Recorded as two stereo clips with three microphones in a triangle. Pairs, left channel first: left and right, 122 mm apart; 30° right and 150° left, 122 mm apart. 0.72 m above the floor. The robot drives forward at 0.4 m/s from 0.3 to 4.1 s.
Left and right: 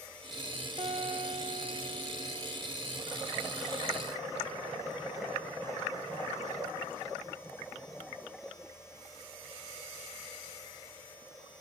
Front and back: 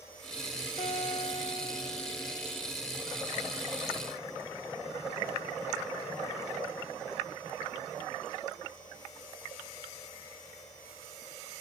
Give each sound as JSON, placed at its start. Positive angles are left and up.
{"t": 0.8, "sound": "a guitar", "azimuth_deg": -45, "distance_m": 0.8}